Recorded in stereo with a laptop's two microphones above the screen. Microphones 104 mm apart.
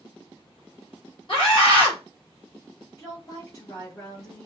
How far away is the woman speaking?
About 2 m.